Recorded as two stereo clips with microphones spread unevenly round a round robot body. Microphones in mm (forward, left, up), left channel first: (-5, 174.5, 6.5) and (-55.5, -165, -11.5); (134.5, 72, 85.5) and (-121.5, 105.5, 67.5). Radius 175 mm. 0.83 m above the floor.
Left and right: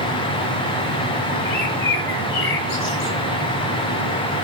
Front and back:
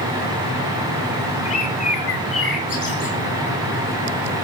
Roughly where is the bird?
Ahead left.